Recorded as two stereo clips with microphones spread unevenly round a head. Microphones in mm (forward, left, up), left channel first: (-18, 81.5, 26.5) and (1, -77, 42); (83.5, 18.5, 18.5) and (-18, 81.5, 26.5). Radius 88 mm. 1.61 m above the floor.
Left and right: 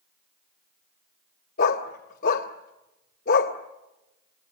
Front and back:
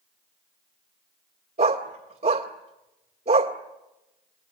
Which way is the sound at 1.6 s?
130° left.